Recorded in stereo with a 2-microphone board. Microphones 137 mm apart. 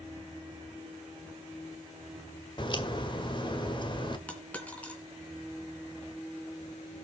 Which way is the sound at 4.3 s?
10° left (ahead or behind).